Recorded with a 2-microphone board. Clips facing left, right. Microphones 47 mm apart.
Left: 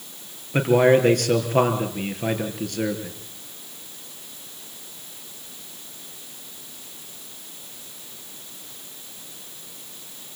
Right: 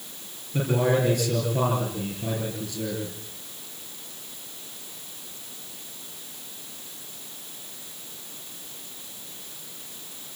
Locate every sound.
0.5 s a man speaking: 60° left (ahead or behind), 4.5 m